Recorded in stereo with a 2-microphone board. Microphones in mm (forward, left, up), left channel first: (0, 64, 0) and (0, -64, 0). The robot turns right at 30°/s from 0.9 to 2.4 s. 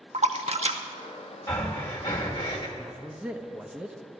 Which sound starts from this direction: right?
A splash, at 0.1 s.